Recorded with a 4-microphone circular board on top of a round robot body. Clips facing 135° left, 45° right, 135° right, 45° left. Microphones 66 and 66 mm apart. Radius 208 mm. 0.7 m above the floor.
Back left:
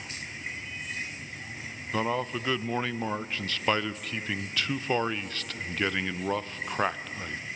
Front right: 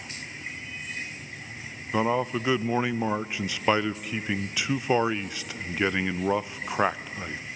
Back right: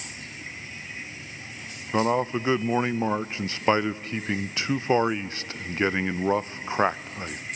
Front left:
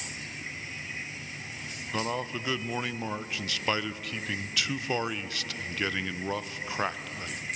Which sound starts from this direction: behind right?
A man speaking, at 1.9 s.